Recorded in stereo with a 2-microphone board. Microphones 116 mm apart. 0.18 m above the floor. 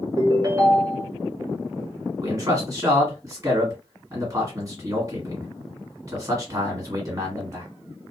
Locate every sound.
0.2 s a ringtone: 30° right (ahead or behind), 1.2 m
2.2 s a man speaking: 30° right (ahead or behind), 1.7 m